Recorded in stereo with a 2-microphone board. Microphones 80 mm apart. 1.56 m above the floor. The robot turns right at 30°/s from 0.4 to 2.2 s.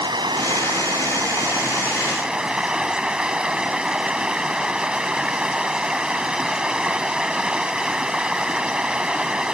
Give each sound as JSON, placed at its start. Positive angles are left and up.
{"t": 0.0, "sound": "running water", "azimuth_deg": -65}